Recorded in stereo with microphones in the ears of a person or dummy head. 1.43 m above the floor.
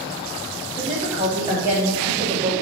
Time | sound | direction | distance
0.7 | a woman speaking | 15° right (ahead or behind) | 2.5 m